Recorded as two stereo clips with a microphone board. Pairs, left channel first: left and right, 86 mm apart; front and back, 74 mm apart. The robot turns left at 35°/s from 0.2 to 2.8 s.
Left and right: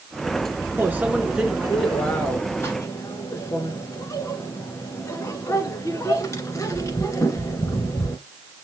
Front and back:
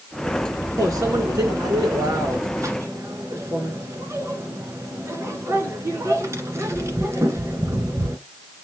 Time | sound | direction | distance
0.8 | a microwave | 150° right | 1.5 m